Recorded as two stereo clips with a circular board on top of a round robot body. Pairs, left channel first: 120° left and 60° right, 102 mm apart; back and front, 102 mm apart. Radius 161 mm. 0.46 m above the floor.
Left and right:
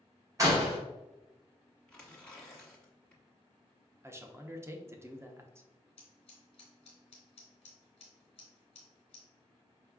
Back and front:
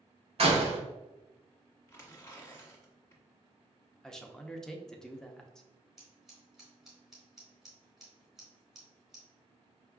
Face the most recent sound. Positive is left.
turn(degrees=90)